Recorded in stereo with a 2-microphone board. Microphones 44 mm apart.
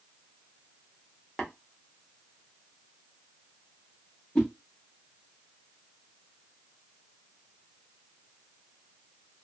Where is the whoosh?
25° left (ahead or behind), 1.0 m.